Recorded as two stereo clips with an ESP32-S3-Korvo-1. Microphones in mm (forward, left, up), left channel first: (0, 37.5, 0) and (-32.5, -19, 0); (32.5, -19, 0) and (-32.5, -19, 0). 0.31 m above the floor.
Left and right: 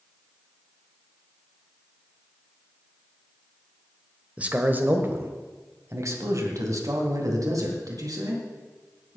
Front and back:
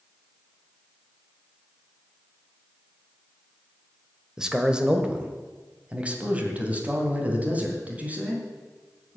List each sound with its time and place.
4.4 s a man speaking: 120° right, 1.2 m; by 9.2 s 115° right, 3.5 m